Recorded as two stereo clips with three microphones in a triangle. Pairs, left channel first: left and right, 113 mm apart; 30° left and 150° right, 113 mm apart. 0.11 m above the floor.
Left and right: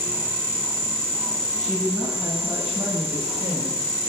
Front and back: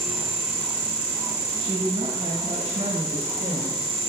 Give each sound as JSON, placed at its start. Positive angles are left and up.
{"t": 1.6, "sound": "a woman speaking", "azimuth_deg": -170, "distance_m": 5.5}